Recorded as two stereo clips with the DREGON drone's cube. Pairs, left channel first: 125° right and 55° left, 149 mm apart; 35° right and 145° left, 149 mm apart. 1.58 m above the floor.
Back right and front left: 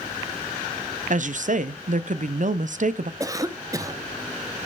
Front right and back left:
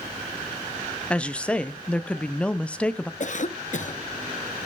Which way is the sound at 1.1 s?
45° left.